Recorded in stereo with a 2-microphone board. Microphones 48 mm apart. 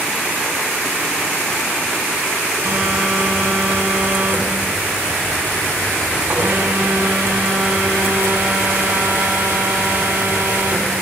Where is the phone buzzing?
75° right (ahead or behind), 2.5 m.